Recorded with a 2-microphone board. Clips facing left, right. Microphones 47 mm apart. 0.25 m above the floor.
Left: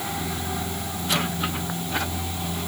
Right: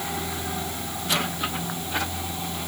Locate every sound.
Only background noise.